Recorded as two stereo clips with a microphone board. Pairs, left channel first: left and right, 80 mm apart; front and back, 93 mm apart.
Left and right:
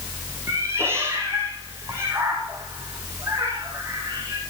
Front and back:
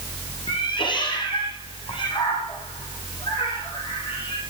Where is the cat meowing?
30° right, 6 m.